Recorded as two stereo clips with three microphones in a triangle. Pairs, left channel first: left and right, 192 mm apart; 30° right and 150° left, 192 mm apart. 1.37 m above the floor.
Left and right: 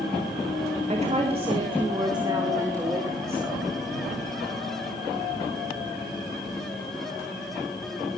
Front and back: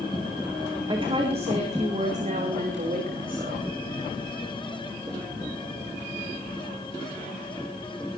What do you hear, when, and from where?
0.9 s a woman speaking: 145° right, 2.5 m; by 3.6 s 165° right, 3.5 m